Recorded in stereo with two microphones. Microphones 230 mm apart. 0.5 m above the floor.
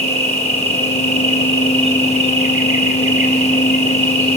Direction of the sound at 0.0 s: 65° right (ahead or behind).